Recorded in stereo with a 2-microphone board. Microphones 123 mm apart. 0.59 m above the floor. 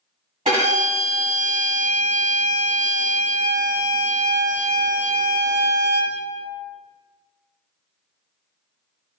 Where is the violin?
65° right (ahead or behind), 1.9 m.